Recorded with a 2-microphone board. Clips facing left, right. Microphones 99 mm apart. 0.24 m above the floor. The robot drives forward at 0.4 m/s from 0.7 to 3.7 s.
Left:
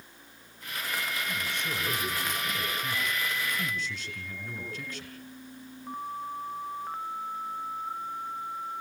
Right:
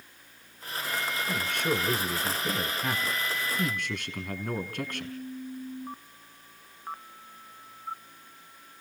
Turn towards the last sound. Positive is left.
turn(degrees=-55)  # may be behind; listen again after turning